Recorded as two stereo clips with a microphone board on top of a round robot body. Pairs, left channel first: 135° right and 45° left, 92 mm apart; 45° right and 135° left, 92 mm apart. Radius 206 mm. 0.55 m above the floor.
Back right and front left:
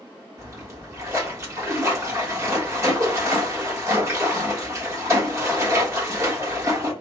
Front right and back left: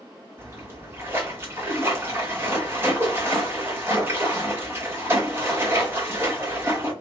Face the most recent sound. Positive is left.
turn(degrees=85)